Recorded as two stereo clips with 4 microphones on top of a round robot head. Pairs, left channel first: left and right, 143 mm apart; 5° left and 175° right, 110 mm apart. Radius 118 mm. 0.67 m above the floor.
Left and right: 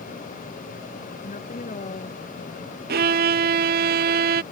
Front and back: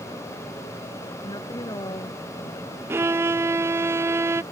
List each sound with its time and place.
1.2 s a woman speaking: 55° left
2.9 s a violin: 100° right